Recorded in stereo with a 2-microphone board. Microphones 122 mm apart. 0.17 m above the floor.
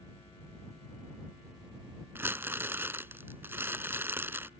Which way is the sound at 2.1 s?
20° right (ahead or behind).